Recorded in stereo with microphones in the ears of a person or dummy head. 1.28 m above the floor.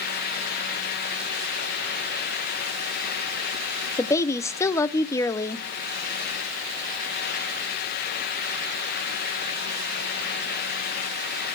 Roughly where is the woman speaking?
Centre.